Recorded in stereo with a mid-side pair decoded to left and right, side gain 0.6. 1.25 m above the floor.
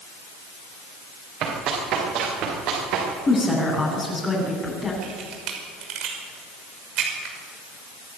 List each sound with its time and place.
1.4 s running footsteps: 60° right, 9.5 m; by 3.1 s 70° right, 9 m
3.3 s a woman speaking: 20° left, 8.5 m
5.0 s a camera shutter: 65° right, 6 m